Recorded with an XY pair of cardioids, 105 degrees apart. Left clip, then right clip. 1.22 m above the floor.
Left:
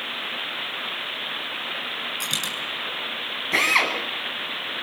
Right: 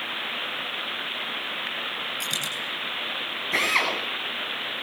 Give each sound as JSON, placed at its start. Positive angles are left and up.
{"t": 2.2, "sound": "a dropped coin", "azimuth_deg": 15, "distance_m": 8.0}
{"t": 3.5, "sound": "a drill", "azimuth_deg": 20, "distance_m": 9.5}